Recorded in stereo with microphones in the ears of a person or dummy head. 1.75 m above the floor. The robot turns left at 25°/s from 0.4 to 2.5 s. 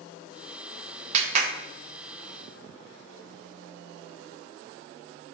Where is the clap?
40° right (ahead or behind), 0.7 m; by 1.5 s 50° right (ahead or behind), 0.7 m.